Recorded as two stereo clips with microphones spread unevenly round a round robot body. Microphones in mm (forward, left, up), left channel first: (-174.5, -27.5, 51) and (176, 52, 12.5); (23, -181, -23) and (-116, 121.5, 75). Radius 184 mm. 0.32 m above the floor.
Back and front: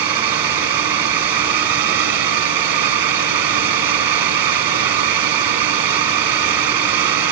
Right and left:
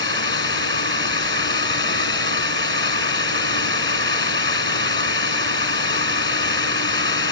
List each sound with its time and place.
0.0 s a drone: 5° left